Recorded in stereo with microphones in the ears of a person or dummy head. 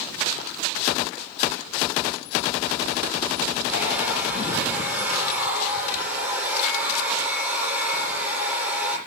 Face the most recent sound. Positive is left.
turn(degrees=-5)  # may be behind; listen again after turning